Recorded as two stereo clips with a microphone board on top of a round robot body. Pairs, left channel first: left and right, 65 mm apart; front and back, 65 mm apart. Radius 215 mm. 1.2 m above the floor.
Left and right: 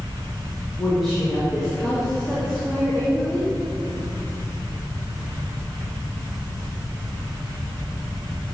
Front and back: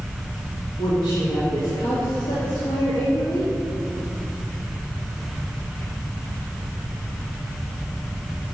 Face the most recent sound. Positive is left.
turn(degrees=0)